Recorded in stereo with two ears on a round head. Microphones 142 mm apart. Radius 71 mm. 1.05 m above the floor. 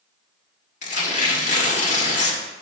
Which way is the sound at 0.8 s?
50° left (ahead or behind).